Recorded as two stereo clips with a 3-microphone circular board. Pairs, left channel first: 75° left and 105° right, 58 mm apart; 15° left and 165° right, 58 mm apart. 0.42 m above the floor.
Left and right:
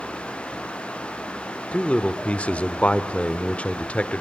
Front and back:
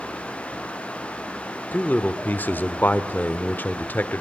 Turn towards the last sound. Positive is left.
turn(degrees=30)